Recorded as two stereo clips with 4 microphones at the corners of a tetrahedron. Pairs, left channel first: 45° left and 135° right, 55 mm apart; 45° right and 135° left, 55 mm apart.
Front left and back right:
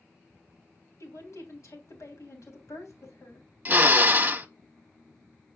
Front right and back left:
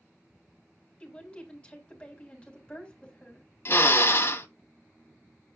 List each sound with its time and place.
1.0 s a woman speaking: 25° left, 3.5 m
3.6 s a drill: 80° right, 1.1 m